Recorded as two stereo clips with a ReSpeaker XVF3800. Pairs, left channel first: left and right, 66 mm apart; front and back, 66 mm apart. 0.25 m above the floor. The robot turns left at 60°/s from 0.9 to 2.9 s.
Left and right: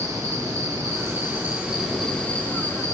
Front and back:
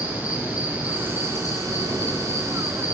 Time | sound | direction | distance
0.0 | an insect | 120° right | 6.5 m